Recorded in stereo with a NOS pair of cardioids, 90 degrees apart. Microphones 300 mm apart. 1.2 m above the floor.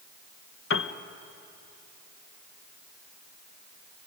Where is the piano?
45° left, 1.1 m.